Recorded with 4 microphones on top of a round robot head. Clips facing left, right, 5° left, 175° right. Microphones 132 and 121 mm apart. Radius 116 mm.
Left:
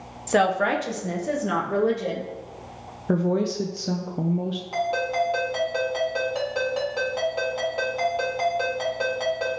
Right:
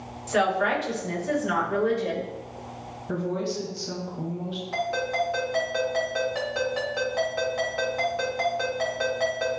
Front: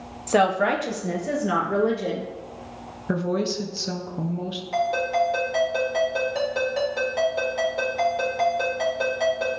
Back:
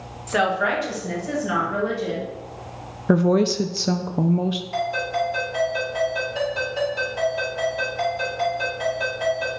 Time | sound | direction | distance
0.3 | a woman speaking | 55° left | 0.8 m
3.1 | a woman speaking | 140° left | 0.6 m
4.7 | a ringtone | 20° left | 4 m